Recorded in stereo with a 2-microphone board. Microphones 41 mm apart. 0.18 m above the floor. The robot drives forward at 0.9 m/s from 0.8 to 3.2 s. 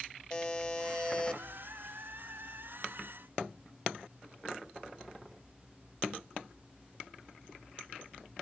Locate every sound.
0.3 s a buzzer: 20° left (ahead or behind), 2 m; by 1.4 s 25° left (ahead or behind), 1.7 m